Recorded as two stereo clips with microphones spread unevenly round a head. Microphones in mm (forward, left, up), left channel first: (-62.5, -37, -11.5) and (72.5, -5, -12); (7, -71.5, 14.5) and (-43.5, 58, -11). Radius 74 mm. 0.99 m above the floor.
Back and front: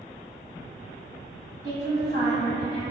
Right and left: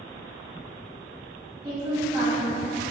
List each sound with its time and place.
1.6 s a woman speaking: 50° left, 1.9 m